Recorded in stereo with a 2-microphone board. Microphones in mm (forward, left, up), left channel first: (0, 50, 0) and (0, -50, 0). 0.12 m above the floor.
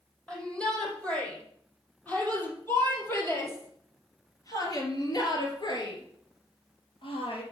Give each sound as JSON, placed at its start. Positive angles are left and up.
{"t": 0.3, "sound": "a shout", "side_deg": 10, "distance_m": 5.0}